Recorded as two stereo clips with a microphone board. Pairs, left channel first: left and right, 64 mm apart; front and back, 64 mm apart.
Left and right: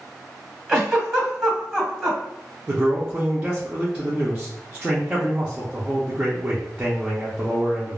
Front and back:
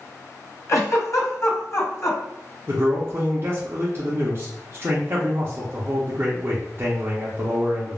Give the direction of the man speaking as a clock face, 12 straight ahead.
5 o'clock.